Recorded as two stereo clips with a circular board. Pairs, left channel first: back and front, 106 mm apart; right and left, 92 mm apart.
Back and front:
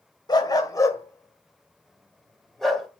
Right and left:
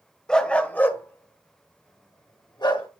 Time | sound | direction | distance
0.3 | a dog barking | 170° right | 1.5 m